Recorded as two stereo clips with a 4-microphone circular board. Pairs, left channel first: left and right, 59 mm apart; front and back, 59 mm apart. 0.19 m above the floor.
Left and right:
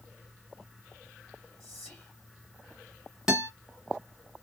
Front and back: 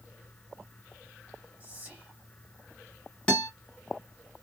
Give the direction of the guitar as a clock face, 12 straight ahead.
1 o'clock.